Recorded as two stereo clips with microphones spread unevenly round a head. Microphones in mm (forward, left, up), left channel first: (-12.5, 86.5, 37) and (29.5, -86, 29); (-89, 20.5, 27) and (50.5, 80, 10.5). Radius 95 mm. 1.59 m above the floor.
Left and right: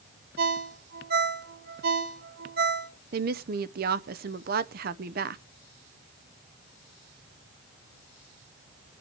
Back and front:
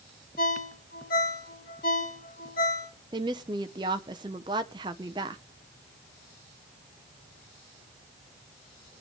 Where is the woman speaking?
45° right, 0.6 m.